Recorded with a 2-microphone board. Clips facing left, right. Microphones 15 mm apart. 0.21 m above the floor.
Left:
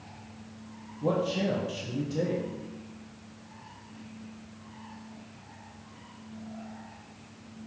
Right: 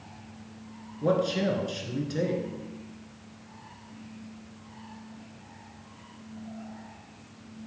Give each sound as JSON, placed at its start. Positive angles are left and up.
{"t": 1.0, "sound": "a man speaking", "side_deg": -60, "distance_m": 2.0}